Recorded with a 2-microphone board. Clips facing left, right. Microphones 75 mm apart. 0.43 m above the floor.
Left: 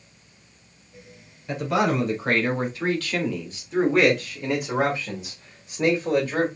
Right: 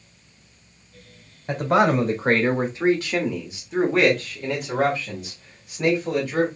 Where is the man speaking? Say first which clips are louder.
Right 4 dB; 50° right (ahead or behind), 1.5 m; by 6.5 s 35° left (ahead or behind), 2.0 m.